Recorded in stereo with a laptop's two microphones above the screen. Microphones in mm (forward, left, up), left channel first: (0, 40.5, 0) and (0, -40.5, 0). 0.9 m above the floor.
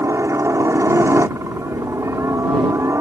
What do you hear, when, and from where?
0.0 s a helicopter: 35° right (ahead or behind)